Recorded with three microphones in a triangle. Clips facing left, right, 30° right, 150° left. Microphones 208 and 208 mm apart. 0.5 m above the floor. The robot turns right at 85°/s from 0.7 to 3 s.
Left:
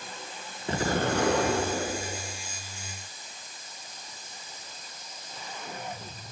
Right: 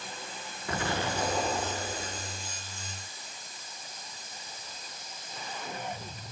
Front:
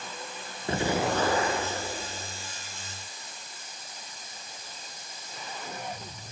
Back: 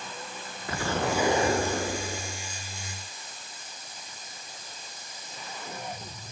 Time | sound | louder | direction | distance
0.7 | an explosion | left 5 dB, front 2 dB | 30° left | 2.5 m